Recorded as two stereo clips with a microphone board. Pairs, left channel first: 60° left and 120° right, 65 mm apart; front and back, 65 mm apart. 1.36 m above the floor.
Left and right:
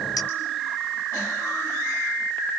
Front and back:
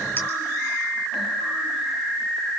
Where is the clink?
55° left, 3.5 m.